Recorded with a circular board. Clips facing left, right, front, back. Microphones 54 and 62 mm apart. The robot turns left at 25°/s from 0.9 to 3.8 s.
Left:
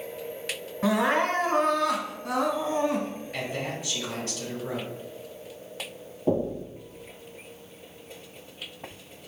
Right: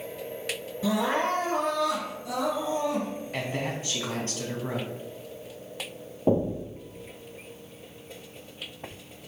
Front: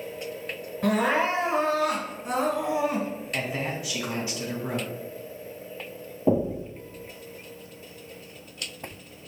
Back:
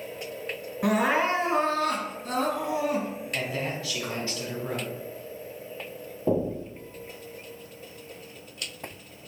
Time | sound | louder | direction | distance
0.8 | crying | left 3 dB, even | 105° left | 1.2 m
3.3 | a man speaking | right 1 dB, front 1 dB | 55° right | 1.2 m
6.3 | knocking | right 1 dB, front 2 dB | 55° right | 1.0 m